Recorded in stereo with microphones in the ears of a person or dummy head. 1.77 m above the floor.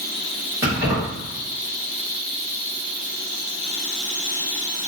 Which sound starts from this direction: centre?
Keys jangling, at 0.6 s.